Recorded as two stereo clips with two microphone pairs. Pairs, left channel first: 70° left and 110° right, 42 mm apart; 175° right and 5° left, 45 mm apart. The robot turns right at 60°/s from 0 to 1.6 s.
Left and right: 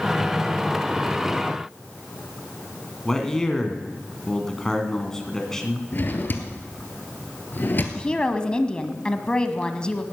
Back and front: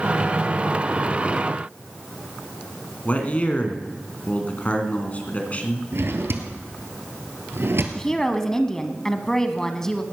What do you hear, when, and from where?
3.0 s a man speaking: 140° left, 2 m
5.9 s a drawer: 25° left, 1.4 m
8.0 s a woman speaking: 115° left, 1.1 m